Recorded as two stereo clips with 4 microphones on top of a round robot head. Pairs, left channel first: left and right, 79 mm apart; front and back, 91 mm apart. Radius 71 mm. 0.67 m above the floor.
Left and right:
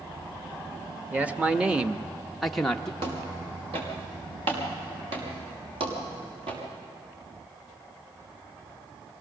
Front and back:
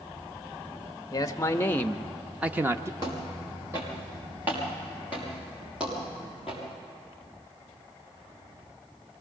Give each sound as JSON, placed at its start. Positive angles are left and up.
{"t": 1.1, "sound": "a man speaking", "azimuth_deg": -25, "distance_m": 0.9}
{"t": 3.0, "sound": "footsteps", "azimuth_deg": -115, "distance_m": 5.0}